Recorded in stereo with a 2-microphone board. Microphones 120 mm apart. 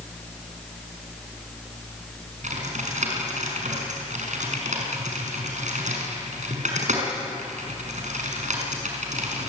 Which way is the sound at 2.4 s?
75° right (ahead or behind).